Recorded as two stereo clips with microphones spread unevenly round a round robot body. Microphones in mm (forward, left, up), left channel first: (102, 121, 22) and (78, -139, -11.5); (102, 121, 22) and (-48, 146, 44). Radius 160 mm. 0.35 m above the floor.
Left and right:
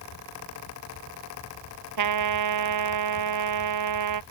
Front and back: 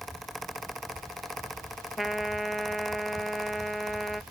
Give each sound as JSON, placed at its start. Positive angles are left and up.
{"t": 2.0, "sound": "a trumpet", "azimuth_deg": -100}